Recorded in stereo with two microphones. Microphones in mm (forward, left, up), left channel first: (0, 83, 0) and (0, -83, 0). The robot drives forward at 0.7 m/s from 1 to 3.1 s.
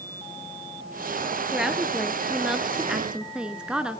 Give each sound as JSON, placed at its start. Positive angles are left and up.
{"t": 1.5, "sound": "a woman speaking", "side_deg": -5, "distance_m": 2.5}